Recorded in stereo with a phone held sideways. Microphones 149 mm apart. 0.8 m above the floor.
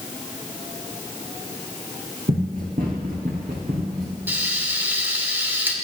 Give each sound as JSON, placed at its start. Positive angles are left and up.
{"t": 2.3, "sound": "running footsteps", "side_deg": -80, "distance_m": 3.5}
{"t": 4.3, "sound": "frying", "side_deg": -15, "distance_m": 1.7}